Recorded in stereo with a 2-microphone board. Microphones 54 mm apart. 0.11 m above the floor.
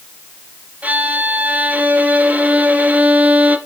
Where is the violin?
30° right (ahead or behind), 1.5 m.